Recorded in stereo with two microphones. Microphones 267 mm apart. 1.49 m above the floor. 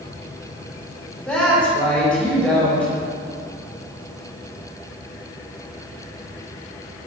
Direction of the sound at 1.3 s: 5° left (ahead or behind).